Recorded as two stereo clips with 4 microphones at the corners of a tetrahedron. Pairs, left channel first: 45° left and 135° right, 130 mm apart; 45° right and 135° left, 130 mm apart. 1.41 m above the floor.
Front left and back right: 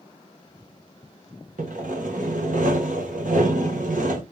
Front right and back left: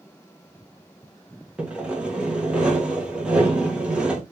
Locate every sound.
1.6 s sawing: 145° right, 1.5 m